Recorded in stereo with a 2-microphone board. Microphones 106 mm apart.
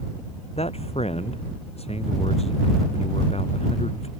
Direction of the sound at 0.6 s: 70° left (ahead or behind).